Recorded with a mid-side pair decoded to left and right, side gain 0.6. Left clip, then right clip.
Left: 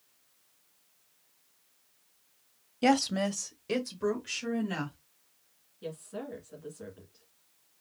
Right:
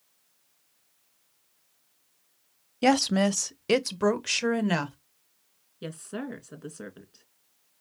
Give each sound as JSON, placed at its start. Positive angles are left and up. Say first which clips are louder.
{"t": 2.8, "sound": "a woman speaking", "louder": "right 4 dB", "azimuth_deg": -20, "distance_m": 0.6}
{"t": 5.8, "sound": "a woman speaking", "louder": "right 3 dB", "azimuth_deg": -65, "distance_m": 2.0}